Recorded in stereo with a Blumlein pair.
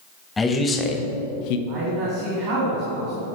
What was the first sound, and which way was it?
A man speaking, 10° left.